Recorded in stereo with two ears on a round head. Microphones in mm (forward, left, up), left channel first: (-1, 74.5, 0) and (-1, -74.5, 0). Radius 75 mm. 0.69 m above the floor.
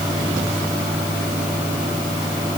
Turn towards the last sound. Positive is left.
No sound to turn to.